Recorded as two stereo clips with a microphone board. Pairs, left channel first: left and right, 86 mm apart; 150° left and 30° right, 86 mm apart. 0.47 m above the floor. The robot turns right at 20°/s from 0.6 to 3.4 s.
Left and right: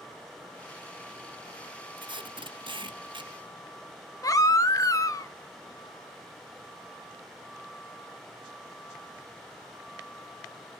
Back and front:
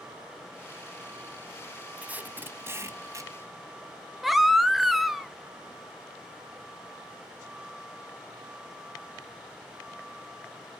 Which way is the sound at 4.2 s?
60° left.